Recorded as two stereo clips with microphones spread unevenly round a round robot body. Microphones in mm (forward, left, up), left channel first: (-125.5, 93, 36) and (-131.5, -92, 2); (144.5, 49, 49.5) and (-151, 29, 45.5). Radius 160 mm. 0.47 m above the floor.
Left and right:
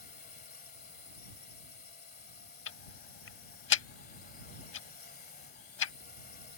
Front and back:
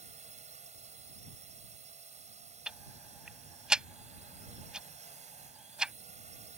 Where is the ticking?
95° left.